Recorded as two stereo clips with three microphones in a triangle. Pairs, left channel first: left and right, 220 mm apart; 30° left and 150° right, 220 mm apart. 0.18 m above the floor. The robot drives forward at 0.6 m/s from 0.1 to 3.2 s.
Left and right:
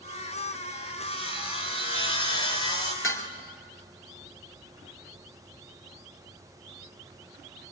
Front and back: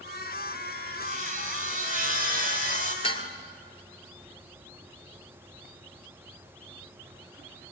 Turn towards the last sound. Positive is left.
turn(degrees=95)